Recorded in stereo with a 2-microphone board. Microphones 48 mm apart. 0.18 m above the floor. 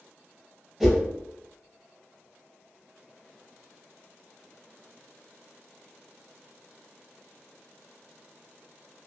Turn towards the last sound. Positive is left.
turn(degrees=-10)  # may be behind; listen again after turning